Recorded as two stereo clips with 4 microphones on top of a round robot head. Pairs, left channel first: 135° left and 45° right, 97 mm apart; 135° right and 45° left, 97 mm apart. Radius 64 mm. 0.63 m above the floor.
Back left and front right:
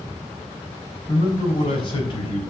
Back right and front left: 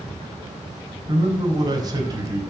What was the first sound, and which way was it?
A man speaking, 95° left.